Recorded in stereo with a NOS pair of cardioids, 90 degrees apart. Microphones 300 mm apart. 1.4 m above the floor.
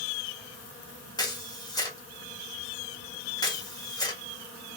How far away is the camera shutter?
About 1.6 m.